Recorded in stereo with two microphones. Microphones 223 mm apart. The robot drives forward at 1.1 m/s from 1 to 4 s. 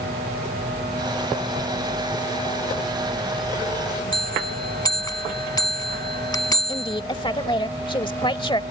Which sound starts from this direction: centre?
A bell, at 4.1 s.